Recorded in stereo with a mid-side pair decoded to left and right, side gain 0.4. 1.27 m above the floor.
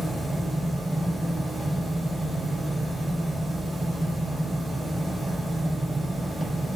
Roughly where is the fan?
Ahead.